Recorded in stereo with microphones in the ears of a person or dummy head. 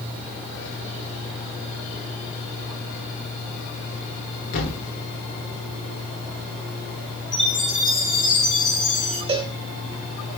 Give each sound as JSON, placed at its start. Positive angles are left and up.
{"t": 4.5, "sound": "a thud", "side_deg": 50, "distance_m": 1.4}
{"t": 7.3, "sound": "a chime", "side_deg": 5, "distance_m": 0.8}
{"t": 9.3, "sound": "a cowbell", "side_deg": -25, "distance_m": 0.6}